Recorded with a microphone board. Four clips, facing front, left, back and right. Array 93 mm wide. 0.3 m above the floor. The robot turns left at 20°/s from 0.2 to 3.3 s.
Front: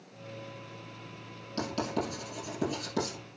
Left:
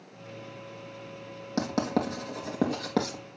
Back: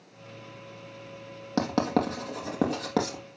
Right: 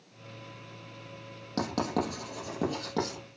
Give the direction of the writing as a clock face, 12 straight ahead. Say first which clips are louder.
Left 2 dB, back 7 dB; 6 o'clock.